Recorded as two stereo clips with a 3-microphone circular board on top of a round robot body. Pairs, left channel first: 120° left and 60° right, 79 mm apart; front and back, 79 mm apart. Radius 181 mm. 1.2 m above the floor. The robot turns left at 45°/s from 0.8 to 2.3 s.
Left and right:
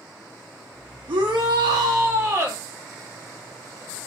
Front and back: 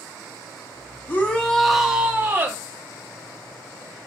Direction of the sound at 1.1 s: 60° right.